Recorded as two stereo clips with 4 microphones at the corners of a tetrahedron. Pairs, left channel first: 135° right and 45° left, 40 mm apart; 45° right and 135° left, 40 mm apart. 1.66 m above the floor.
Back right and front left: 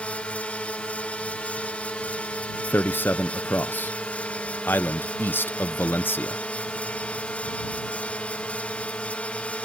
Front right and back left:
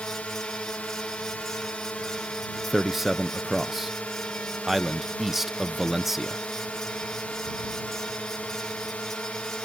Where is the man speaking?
145° right.